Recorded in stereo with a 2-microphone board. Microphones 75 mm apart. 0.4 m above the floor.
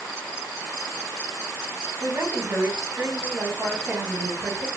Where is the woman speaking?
25° right (ahead or behind), 1.4 m.